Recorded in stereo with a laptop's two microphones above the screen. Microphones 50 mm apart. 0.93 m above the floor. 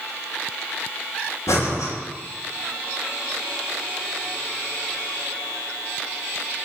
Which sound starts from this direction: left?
Breathing, at 1.5 s.